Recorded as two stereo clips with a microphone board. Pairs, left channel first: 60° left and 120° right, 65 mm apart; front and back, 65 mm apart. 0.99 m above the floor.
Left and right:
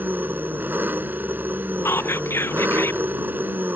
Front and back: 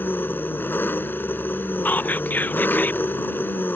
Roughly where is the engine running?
Ahead right.